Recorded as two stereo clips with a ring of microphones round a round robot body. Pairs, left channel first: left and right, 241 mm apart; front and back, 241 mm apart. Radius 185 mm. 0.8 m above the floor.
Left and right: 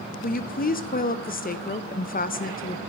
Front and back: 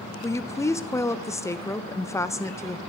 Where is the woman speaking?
75° left, 0.7 m.